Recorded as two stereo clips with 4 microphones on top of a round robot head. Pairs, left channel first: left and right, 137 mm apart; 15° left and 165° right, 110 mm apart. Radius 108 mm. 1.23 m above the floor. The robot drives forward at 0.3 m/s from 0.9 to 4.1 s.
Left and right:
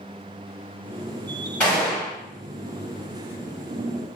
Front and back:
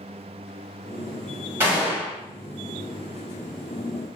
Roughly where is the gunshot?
Behind.